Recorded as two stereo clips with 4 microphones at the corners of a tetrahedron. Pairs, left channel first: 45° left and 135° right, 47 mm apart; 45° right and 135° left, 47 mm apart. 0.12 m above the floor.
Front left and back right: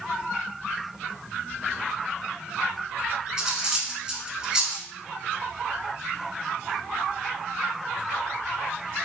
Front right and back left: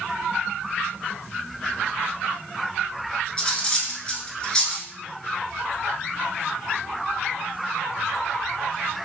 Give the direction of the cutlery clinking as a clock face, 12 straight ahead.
3 o'clock.